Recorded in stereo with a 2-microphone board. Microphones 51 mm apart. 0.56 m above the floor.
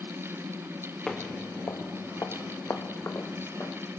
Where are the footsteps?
5° left (ahead or behind), 0.8 m; by 3.8 s 55° left (ahead or behind), 3.5 m.